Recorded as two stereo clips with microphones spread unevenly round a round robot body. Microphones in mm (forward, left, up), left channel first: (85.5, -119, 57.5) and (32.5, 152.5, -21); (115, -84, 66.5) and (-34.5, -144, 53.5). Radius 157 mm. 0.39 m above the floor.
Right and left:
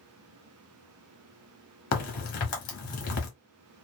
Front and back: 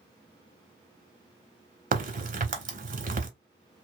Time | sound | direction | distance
1.9 | a crack | 120° right | 1.0 m